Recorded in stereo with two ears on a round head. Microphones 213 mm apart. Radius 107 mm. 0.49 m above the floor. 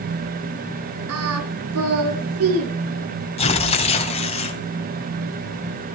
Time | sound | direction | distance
1.1 | singing | 70° right (ahead or behind) | 4.5 m
3.4 | tearing paper | 30° left (ahead or behind) | 2.5 m